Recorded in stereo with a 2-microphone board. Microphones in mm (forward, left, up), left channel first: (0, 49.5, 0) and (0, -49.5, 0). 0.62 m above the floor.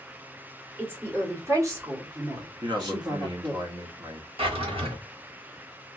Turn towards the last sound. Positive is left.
turn(degrees=-70)  # may be behind; listen again after turning